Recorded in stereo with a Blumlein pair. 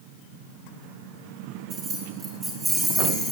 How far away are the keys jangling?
About 3 m.